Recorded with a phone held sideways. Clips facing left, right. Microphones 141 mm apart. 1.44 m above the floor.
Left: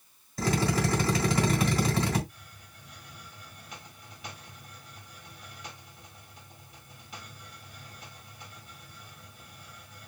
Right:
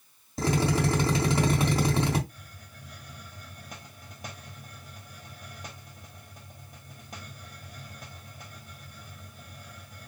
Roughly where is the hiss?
Right.